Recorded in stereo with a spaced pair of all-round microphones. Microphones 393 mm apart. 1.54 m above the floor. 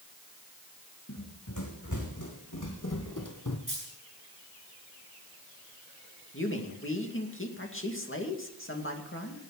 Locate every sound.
1.1 s running footsteps: 45° left (ahead or behind), 5 m; by 3.6 s 50° left (ahead or behind), 2.5 m
3.7 s a dropped coin: 55° right (ahead or behind), 9 m
6.3 s a man speaking: 30° left (ahead or behind), 2.5 m